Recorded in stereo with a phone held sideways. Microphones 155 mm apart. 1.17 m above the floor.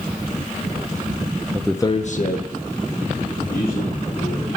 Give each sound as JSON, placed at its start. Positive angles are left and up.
{"t": 1.5, "sound": "a man speaking", "side_deg": -20, "distance_m": 0.5}